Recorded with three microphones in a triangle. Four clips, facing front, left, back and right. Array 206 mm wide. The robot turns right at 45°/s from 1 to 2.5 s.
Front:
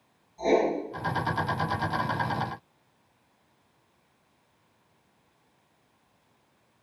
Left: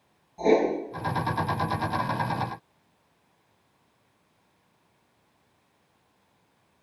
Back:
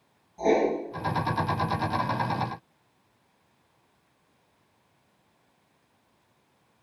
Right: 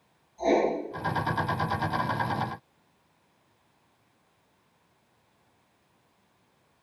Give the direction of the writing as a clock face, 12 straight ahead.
8 o'clock.